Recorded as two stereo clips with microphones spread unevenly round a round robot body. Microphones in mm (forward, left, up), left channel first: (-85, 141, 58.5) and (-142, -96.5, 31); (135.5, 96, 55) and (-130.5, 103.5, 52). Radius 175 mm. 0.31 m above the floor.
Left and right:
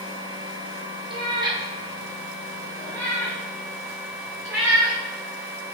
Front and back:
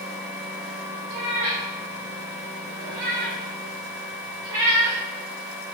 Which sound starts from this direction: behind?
A cat meowing, at 1.1 s.